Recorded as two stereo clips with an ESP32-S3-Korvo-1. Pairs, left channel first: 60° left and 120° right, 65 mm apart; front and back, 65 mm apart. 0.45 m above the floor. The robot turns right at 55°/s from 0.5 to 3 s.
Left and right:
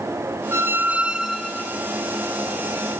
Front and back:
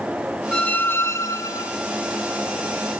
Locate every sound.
0.5 s a squeak: 75° right, 0.5 m; by 1.7 s 10° right, 0.5 m